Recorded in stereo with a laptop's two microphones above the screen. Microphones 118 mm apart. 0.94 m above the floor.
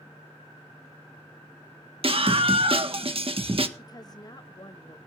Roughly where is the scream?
Right.